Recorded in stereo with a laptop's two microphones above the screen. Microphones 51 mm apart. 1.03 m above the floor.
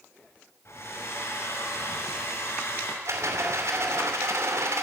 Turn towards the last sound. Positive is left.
turn(degrees=-75)  # may be behind; listen again after turning